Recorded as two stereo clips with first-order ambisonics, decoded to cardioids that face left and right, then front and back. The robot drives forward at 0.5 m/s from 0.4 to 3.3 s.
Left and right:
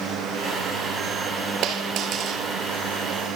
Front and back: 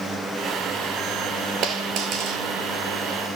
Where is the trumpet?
I don't hear a trumpet.